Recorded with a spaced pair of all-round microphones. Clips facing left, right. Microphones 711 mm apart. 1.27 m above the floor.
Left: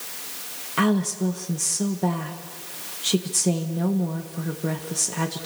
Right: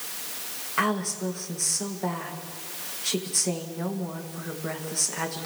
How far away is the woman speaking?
About 1.8 m.